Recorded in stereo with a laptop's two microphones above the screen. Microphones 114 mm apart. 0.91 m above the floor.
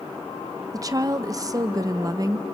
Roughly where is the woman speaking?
Right.